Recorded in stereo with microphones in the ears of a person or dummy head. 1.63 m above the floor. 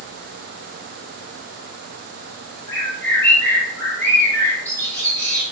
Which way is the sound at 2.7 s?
15° left (ahead or behind).